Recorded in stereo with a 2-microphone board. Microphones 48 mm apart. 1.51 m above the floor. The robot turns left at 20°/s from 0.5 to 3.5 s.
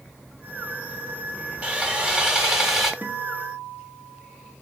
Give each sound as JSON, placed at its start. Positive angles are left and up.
{"t": 1.6, "sound": "sawing", "side_deg": -25, "distance_m": 1.7}
{"t": 3.0, "sound": "a guitar", "side_deg": -35, "distance_m": 1.6}